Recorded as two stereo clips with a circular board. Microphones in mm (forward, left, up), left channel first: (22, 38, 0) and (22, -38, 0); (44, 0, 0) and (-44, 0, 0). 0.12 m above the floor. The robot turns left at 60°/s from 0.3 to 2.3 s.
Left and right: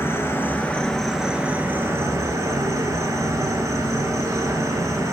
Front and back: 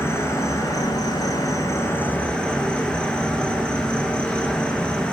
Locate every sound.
0.0 s an insect: 45° left, 0.9 m; by 5.1 s 75° right, 0.9 m